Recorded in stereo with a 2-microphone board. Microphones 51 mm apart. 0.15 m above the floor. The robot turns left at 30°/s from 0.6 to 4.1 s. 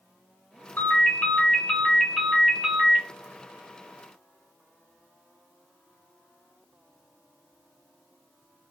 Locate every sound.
0.8 s a ringtone: 45° left, 1.5 m; by 3.0 s 20° right, 1.5 m